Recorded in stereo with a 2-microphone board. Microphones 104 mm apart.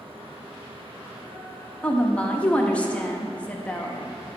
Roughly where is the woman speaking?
Centre.